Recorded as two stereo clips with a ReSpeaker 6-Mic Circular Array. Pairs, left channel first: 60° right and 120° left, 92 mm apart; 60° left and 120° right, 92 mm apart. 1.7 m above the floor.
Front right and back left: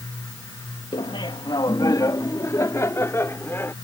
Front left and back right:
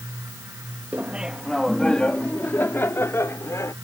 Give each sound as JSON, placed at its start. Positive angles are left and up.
{"t": 0.9, "sound": "laughter", "azimuth_deg": -50}